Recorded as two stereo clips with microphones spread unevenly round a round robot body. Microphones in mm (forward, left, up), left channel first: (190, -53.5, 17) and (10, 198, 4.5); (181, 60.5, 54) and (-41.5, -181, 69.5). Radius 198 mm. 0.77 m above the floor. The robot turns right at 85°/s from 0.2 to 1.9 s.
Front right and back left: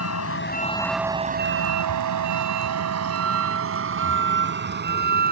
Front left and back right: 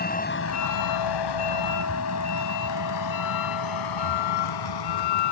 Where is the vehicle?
15° right; by 5.3 s 65° left.